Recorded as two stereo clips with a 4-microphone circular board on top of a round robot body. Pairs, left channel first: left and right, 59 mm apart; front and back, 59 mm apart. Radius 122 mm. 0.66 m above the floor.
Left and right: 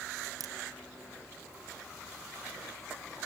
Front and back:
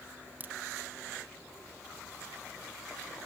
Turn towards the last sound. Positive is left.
turn(degrees=-115)